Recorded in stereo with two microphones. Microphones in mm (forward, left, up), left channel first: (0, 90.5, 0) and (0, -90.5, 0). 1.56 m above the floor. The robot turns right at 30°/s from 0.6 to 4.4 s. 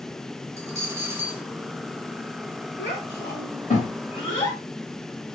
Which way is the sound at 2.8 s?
70° left (ahead or behind).